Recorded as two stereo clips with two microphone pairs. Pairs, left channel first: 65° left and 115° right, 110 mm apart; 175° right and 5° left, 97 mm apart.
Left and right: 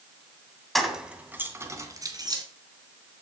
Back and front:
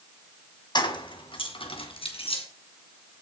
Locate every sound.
0.8 s keys jangling: 155° left, 1.9 m; by 2.4 s 165° right, 3 m